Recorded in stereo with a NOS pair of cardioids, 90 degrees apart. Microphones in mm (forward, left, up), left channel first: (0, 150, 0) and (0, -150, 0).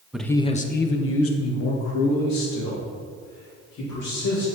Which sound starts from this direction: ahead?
A man speaking, at 0.1 s.